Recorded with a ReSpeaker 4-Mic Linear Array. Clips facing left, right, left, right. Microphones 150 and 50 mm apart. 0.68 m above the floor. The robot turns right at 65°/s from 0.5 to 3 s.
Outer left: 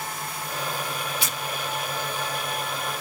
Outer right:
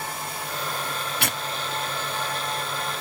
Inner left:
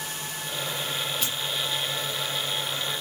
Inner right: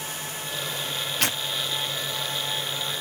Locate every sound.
1.2 s tearing paper: 65° right (ahead or behind), 0.6 m; by 1.4 s 60° right (ahead or behind), 0.6 m